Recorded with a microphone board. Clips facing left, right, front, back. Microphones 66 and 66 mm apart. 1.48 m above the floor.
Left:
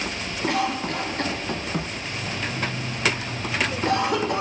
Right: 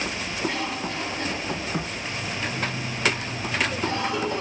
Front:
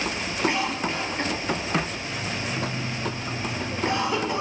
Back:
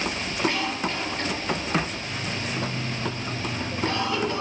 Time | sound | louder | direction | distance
0.5 | a cough | left 8 dB, front 2 dB | 75° left | 1.0 m